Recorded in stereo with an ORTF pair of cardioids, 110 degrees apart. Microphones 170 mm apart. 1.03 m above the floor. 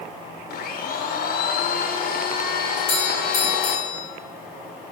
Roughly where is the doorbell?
Ahead left.